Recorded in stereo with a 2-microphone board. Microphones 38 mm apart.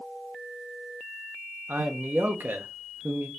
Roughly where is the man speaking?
Right.